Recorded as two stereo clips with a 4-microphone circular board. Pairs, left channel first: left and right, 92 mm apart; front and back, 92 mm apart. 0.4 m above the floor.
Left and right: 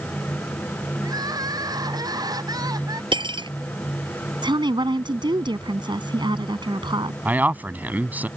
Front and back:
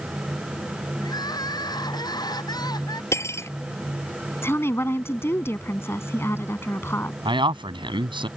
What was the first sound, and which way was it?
Crying, 45° right.